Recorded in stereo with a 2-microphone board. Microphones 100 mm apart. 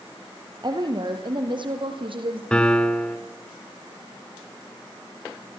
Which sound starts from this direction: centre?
A piano, at 2.5 s.